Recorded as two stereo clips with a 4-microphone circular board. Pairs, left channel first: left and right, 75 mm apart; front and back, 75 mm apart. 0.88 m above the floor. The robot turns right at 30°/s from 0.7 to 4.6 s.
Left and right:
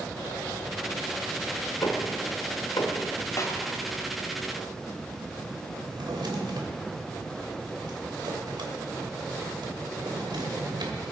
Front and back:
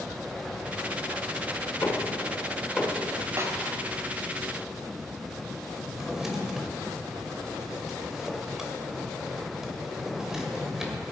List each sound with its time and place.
1.8 s knocking: 60° left, 1.6 m; by 3.0 s 95° left, 1.6 m
3.4 s a snare drum: 130° left, 1.5 m; by 3.5 s 135° left, 1.5 m
5.8 s a drawer: 95° right, 2 m